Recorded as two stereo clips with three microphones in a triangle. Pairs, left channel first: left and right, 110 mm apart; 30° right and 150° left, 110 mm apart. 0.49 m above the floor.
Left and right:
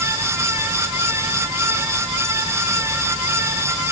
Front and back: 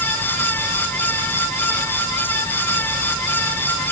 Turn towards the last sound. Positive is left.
No sound to turn to.